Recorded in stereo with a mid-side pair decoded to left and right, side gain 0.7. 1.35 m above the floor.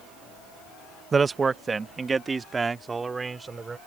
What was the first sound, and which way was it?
A man speaking, 25° right.